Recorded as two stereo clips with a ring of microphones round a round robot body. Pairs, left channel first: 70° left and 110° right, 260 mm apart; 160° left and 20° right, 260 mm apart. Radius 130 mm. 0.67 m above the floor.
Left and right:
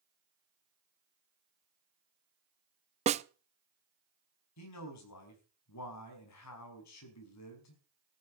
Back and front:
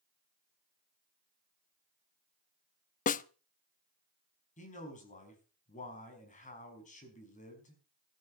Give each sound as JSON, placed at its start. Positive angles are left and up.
{"t": 3.1, "sound": "a snare drum", "azimuth_deg": -165, "distance_m": 0.6}
{"t": 4.6, "sound": "a man speaking", "azimuth_deg": 95, "distance_m": 5.0}